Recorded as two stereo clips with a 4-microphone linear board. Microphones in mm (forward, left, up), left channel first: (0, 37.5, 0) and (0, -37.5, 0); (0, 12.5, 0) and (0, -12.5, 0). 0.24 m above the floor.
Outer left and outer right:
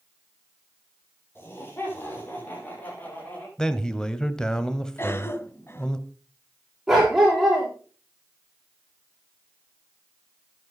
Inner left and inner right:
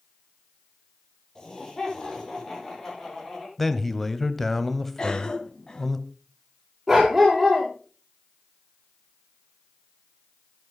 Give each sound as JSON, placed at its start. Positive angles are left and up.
{"t": 1.4, "sound": "laughter", "side_deg": 30, "distance_m": 10.0}
{"t": 3.6, "sound": "a man speaking", "side_deg": 10, "distance_m": 1.1}
{"t": 5.0, "sound": "a cough", "side_deg": 35, "distance_m": 2.0}
{"t": 6.9, "sound": "a dog barking", "side_deg": -5, "distance_m": 8.0}